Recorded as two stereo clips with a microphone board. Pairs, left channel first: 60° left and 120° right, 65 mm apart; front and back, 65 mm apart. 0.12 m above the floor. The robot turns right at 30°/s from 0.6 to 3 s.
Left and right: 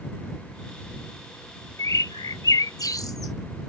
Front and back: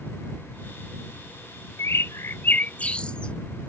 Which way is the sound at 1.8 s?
35° left.